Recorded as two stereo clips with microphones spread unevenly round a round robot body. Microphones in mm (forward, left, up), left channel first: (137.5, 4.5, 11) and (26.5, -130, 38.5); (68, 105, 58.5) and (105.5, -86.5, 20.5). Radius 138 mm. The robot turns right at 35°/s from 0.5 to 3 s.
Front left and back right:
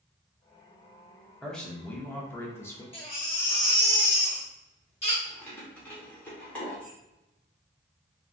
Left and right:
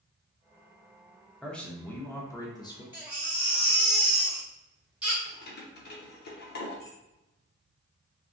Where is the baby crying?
5° right, 1.3 m; by 5.2 s straight ahead, 1.3 m.